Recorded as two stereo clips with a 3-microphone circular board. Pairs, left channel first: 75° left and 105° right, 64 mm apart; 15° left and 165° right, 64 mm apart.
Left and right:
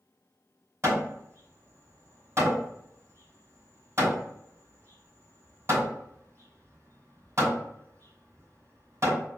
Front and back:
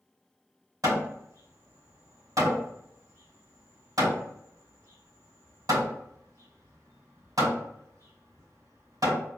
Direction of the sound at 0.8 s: 150° right.